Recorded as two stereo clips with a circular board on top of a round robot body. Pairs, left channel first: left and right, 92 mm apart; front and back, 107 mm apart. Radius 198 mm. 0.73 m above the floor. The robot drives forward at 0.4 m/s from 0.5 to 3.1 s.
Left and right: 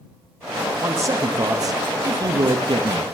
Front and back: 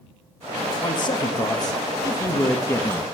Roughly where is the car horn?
No car horn in this recording.